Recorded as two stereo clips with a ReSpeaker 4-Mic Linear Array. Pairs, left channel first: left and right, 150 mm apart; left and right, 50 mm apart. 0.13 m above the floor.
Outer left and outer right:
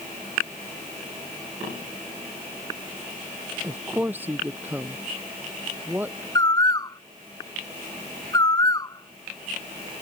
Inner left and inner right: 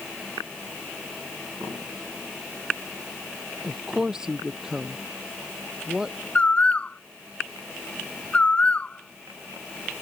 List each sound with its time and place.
3.6 s a woman speaking: 10° right (ahead or behind)
6.3 s a bird: 25° left (ahead or behind)